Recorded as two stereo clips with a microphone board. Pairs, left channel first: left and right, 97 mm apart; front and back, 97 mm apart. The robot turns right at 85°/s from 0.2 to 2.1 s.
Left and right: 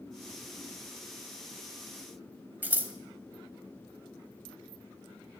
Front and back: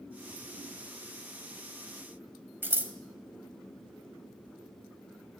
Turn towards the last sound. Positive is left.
turn(degrees=-140)